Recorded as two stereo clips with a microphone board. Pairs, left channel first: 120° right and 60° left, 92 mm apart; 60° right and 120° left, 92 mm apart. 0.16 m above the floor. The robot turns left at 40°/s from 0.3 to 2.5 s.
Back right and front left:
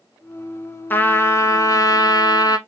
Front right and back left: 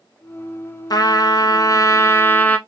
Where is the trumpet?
60° right, 0.7 m; by 2.6 s 120° right, 0.7 m.